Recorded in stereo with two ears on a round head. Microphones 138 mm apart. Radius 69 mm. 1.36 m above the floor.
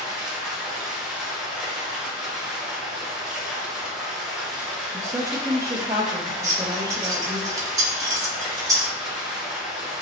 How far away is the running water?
About 0.8 m.